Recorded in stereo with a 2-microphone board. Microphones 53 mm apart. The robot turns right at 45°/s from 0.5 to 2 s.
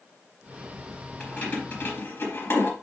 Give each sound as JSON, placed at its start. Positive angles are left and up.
{"t": 1.2, "sound": "keys jangling", "side_deg": 15, "distance_m": 3.5}